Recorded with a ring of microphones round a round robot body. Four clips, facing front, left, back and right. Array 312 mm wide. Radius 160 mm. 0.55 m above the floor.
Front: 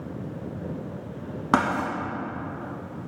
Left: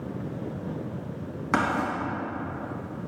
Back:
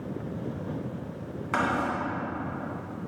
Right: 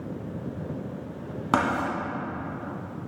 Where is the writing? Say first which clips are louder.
Right 1 dB, front 4 dB; 25° right, 3.5 m.